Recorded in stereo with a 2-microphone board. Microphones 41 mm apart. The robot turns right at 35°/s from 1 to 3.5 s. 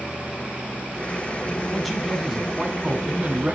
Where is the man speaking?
170° left, 2 m; by 3.5 s 125° right, 2 m.